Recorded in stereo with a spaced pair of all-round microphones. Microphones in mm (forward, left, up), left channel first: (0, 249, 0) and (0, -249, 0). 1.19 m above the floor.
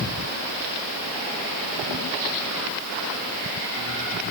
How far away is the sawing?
No sawing in this recording.